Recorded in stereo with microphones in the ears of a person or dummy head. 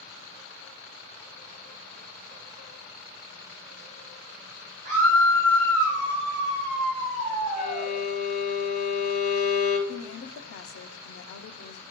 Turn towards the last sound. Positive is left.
turn(degrees=80)